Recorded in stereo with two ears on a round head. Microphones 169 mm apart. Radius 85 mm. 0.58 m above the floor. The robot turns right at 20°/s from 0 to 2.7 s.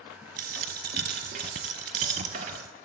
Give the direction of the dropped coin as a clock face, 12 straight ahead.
3 o'clock.